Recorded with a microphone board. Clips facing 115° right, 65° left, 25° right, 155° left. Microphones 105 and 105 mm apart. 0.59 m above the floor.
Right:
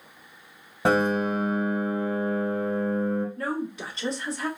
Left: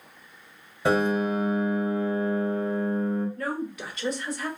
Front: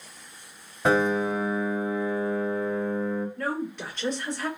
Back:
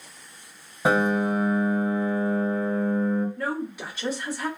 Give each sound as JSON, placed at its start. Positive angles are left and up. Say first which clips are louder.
{"t": 0.8, "sound": "a piano", "louder": "right 1 dB, back 1 dB", "azimuth_deg": -125, "distance_m": 1.1}
{"t": 3.4, "sound": "a woman speaking", "louder": "right 1 dB, back 1 dB", "azimuth_deg": -125, "distance_m": 1.2}